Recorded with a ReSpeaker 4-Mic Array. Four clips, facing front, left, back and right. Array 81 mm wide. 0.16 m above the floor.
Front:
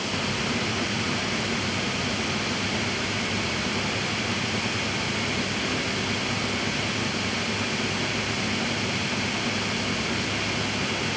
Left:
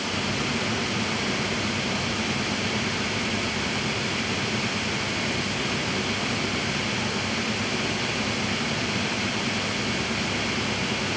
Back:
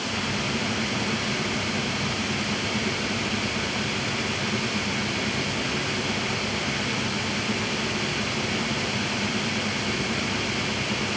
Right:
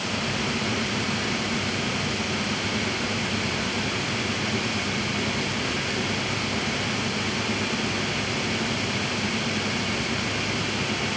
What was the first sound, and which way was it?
Only background noise.